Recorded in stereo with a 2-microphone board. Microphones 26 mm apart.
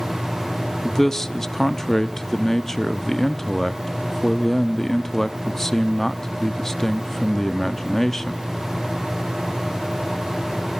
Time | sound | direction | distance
0.8 | a man speaking | 15° left (ahead or behind) | 0.7 m